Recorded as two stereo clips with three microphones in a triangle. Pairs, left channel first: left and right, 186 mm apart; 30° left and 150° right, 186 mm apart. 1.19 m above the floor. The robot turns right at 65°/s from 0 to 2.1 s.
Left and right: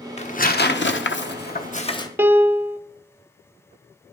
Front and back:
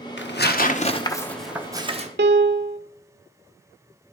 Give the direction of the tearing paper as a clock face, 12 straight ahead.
11 o'clock.